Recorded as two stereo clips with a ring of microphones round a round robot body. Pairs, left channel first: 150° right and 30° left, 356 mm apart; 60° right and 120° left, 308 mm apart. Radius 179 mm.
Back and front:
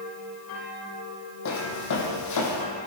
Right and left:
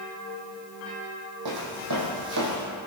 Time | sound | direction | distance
1.4 | footsteps | 160° left | 2 m